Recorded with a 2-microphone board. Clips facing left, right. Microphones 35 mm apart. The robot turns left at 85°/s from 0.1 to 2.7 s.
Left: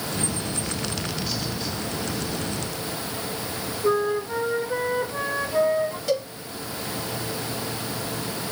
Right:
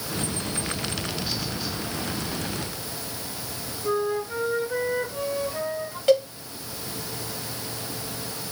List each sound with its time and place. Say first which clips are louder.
3.8 s a flute: left 3 dB; 40° left (ahead or behind), 1.1 m
6.1 s a cowbell: right 8 dB; 35° right (ahead or behind), 1.3 m